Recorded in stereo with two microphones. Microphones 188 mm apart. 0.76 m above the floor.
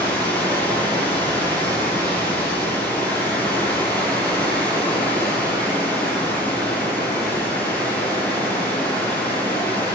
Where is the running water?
10° left (ahead or behind), 7 m.